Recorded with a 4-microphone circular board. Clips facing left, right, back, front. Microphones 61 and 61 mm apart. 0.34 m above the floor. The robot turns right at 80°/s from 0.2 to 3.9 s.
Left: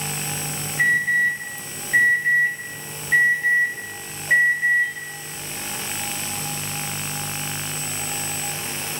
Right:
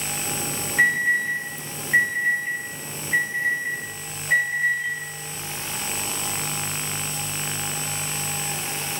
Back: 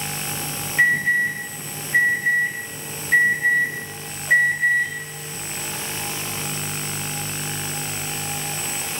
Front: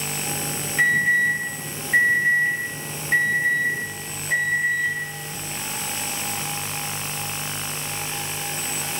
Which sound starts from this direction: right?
An alarm, at 0.8 s.